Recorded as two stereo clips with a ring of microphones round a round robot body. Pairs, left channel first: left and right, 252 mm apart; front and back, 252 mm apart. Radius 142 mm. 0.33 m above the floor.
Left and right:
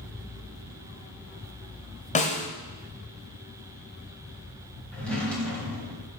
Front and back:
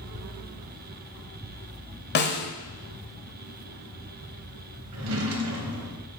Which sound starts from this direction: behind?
A drawer, at 4.9 s.